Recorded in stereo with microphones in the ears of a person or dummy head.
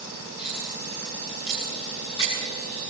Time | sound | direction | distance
0.4 | cutlery clinking | 30° left (ahead or behind) | 7.5 m